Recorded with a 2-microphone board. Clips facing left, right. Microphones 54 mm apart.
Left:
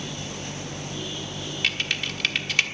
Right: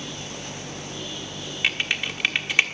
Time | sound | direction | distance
1.6 | typing on a keyboard | 20° right (ahead or behind) | 1.4 m